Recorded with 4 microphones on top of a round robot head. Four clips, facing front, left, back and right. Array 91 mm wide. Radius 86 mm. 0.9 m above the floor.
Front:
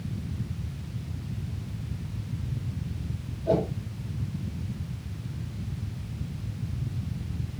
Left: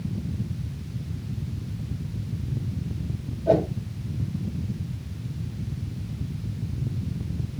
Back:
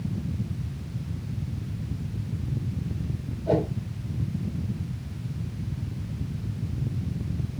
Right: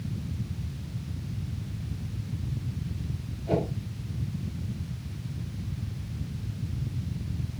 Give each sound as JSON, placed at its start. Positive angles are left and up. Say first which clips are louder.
{"t": 3.5, "sound": "a whoosh", "louder": "left 7 dB, back 1 dB", "azimuth_deg": 90, "distance_m": 5.5}